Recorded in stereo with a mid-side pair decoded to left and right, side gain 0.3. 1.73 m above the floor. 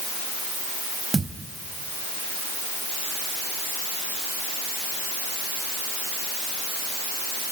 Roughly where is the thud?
Ahead right.